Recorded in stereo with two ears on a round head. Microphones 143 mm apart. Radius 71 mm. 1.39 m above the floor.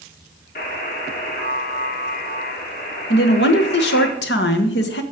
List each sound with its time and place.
0.6 s a buzzer: 60° left (ahead or behind), 2.5 m
3.1 s a woman speaking: 75° left (ahead or behind), 1.5 m